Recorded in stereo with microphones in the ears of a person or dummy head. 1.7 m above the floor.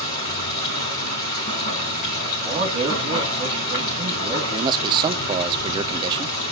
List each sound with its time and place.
0.0 s running water: 40° left (ahead or behind), 5 m
2.4 s a man speaking: 30° right (ahead or behind), 2 m
4.5 s a man speaking: 25° right (ahead or behind), 0.6 m